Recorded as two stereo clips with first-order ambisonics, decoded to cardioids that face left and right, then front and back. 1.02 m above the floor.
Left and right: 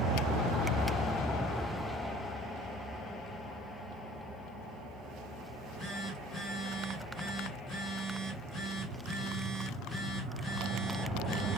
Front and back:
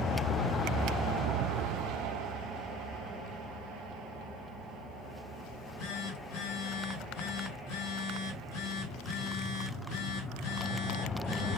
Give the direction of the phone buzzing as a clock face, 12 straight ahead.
12 o'clock.